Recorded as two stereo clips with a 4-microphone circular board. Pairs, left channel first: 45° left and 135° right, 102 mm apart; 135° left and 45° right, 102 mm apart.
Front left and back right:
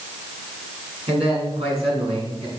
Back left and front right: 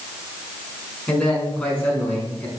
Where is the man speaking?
145° right, 6.5 m; by 2.5 s 155° right, 5.5 m.